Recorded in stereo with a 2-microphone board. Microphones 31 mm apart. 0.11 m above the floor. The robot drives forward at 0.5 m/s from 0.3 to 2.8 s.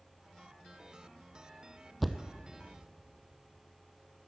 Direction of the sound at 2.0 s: Centre (ahead or behind).